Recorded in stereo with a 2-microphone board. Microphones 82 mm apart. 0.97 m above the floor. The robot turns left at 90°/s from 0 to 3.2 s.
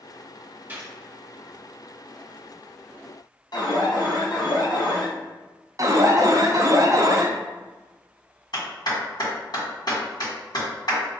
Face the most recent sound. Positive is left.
turn(degrees=55)  # may be behind; listen again after turning